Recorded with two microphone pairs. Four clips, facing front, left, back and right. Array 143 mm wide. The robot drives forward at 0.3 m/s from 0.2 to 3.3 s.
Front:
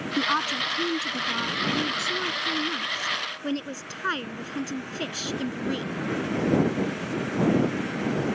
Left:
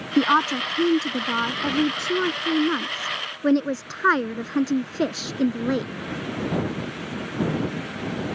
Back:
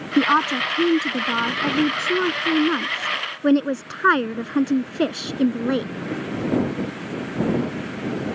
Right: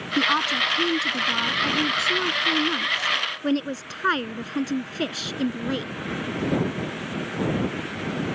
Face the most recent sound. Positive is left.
turn(degrees=155)